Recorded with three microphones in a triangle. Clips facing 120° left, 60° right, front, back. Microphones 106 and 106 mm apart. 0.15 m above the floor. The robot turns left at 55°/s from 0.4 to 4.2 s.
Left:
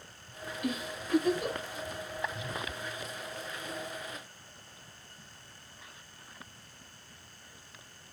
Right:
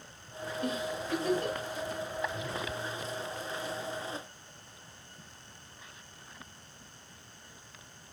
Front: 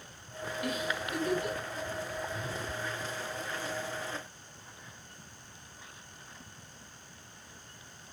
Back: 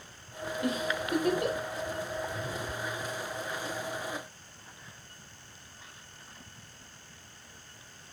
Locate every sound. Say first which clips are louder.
0.6 s a giggle: right 1 dB, back 3 dB; 110° right, 5.5 m; by 1.7 s 170° right, 5.5 m